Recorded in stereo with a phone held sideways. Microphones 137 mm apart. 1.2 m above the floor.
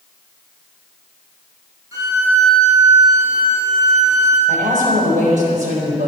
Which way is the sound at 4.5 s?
70° right (ahead or behind).